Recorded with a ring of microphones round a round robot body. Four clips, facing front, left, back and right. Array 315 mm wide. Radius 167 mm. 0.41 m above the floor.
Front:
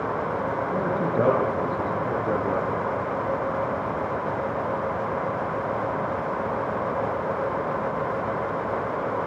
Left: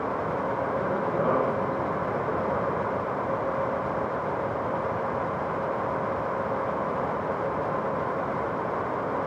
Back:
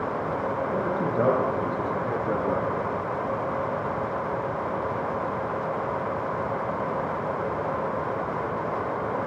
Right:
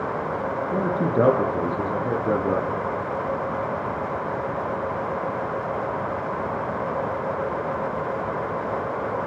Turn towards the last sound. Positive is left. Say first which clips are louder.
# right 4 dB, front 3 dB
turn(degrees=-85)